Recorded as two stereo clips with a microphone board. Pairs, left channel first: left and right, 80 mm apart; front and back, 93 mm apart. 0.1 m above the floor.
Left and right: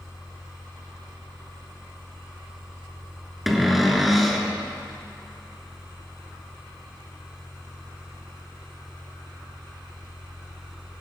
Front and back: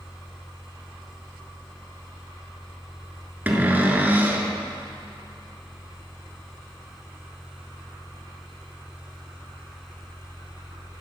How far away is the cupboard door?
About 0.9 m.